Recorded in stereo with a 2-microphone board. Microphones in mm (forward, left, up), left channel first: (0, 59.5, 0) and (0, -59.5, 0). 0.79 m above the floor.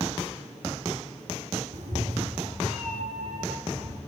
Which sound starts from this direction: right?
A cat meowing, at 1.7 s.